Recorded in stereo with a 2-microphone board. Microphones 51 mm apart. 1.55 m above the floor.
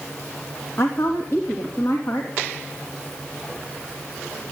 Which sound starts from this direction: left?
A woman speaking, at 0.8 s.